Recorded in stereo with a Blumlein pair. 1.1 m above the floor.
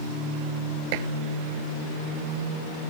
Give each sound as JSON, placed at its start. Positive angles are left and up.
{"t": 0.9, "sound": "dishes clattering", "azimuth_deg": -45}